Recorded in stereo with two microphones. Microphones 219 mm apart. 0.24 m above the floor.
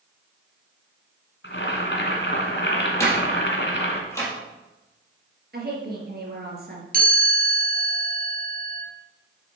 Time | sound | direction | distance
1.4 | boiling | 55° left (ahead or behind) | 1.9 m
3.0 | a door slam | 15° left (ahead or behind) | 4 m
5.5 | a woman speaking | 45° right (ahead or behind) | 4 m
6.9 | a chime | 40° right (ahead or behind) | 3 m